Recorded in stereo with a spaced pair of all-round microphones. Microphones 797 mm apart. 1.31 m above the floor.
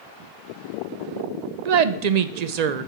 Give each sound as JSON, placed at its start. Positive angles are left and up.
{"t": 1.6, "sound": "a woman speaking", "side_deg": -60, "distance_m": 0.6}